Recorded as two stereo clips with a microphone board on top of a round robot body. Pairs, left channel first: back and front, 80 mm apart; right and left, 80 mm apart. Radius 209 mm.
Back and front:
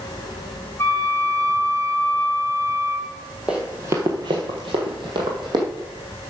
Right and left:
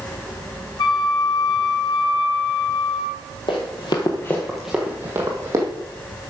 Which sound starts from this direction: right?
Running footsteps, at 3.5 s.